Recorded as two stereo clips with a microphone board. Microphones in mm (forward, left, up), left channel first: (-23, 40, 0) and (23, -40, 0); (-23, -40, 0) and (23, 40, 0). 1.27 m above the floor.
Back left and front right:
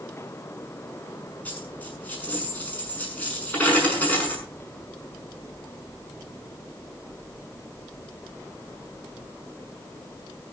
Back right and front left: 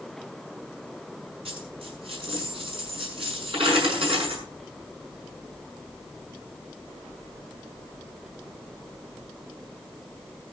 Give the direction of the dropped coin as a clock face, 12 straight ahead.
10 o'clock.